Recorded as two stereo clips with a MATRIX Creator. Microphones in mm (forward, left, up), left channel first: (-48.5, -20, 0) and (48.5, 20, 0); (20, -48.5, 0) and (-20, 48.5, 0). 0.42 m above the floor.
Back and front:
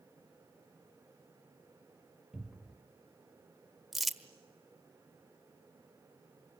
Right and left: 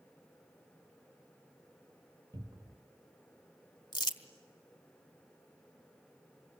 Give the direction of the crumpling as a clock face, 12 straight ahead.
2 o'clock.